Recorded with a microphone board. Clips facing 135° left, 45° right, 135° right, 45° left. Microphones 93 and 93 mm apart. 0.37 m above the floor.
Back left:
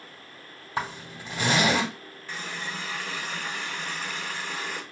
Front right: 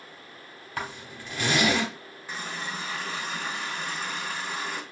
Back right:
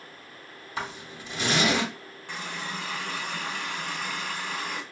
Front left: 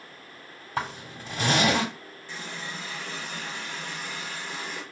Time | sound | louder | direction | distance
0.8 | a zipper | back left 3 dB, front left 3 dB | 80° left | 2 m
2.3 | a running tap | front right 1 dB, back right 3 dB | 115° right | 1.8 m